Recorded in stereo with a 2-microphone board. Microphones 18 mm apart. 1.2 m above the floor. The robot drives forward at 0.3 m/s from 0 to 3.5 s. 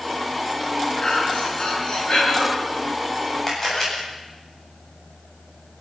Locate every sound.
1.0 s breathing: 45° left (ahead or behind), 7 m; by 2.5 s 40° left (ahead or behind), 7.5 m
3.5 s a camera shutter: 20° left (ahead or behind), 9 m